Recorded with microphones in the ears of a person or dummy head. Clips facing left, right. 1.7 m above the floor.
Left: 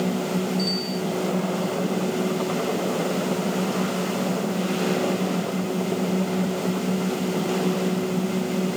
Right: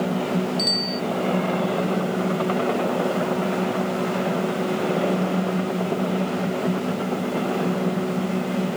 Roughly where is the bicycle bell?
Right.